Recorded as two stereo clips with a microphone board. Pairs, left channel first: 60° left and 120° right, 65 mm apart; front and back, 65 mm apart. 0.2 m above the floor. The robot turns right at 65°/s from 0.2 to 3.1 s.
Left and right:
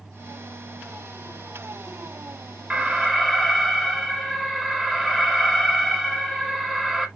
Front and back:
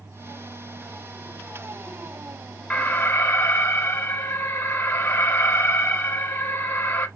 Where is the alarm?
60° right, 0.9 m; by 7.1 s 30° right, 0.9 m.